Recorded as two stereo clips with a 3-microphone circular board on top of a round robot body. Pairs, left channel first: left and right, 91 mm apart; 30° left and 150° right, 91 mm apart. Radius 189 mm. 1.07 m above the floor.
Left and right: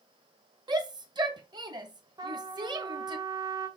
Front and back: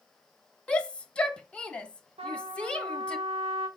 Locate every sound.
0.7 s a shout: 50° right, 1.3 m
2.2 s a trumpet: 135° right, 1.9 m